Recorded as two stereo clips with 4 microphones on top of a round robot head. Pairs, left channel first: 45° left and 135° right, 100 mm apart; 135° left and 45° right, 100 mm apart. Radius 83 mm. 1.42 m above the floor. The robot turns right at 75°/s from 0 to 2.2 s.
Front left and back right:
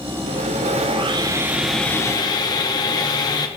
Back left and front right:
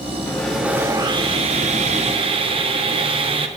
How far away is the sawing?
About 1.3 m.